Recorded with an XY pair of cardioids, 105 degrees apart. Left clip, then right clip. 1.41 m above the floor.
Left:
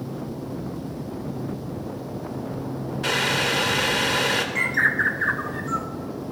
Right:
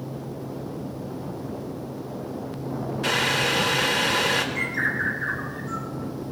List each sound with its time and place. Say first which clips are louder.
3.0 s boiling: even; straight ahead, 1.6 m
4.5 s a bird: left 4 dB; 45° left, 1.0 m